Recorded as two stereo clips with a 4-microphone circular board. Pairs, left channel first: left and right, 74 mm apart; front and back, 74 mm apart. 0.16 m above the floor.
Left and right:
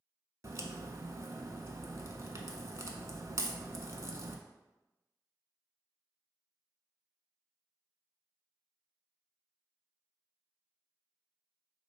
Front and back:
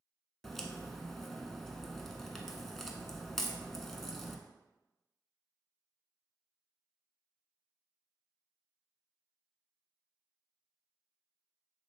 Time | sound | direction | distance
0.4 | a crack | 85° right | 0.5 m